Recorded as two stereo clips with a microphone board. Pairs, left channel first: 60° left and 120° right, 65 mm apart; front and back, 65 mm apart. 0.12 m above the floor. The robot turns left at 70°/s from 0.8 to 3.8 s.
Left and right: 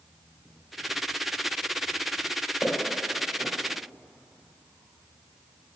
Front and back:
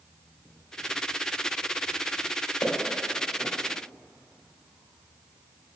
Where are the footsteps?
5° right, 2.5 m; by 3.5 s 70° right, 2.5 m.